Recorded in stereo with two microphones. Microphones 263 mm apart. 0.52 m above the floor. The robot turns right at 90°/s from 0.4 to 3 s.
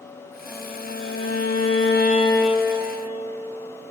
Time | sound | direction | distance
0.5 | a violin | straight ahead | 4 m